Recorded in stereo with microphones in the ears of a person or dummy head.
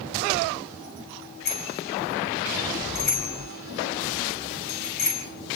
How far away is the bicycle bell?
About 6 m.